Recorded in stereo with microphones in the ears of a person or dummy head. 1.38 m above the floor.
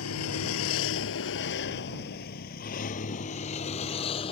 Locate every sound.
0.0 s a vehicle: 85° left; by 4.3 s 25° left (ahead or behind)